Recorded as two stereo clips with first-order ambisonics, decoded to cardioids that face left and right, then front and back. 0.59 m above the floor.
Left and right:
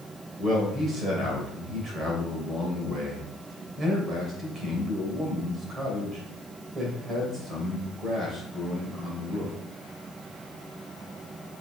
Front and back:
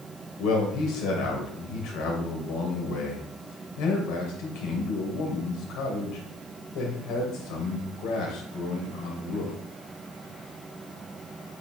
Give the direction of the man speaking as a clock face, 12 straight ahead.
1 o'clock.